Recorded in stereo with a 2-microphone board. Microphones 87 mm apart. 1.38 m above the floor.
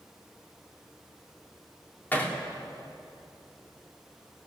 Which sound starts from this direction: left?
Hammering, at 2.1 s.